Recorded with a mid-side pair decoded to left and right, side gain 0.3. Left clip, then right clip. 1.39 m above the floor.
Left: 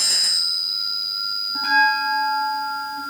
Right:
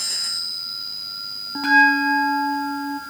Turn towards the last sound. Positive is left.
turn(degrees=-65)